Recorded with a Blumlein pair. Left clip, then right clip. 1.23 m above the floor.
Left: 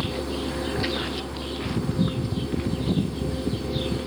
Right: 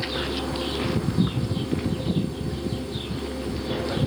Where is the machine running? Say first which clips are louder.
Right 1 dB; straight ahead.